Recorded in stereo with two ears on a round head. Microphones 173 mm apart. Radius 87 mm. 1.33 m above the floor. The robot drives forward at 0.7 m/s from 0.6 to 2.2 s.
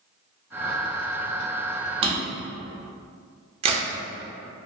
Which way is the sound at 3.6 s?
30° right (ahead or behind).